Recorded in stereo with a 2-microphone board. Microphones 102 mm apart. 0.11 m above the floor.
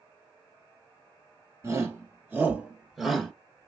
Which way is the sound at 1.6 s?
30° right (ahead or behind).